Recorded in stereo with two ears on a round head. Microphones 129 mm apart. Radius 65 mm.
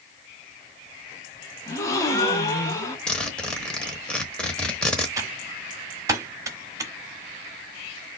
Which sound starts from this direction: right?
Typing on a keyboard, at 5.2 s.